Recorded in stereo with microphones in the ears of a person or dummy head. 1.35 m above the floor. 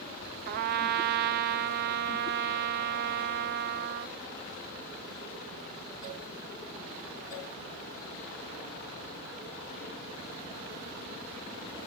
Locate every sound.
0.5 s a trumpet: 60° right (ahead or behind), 0.5 m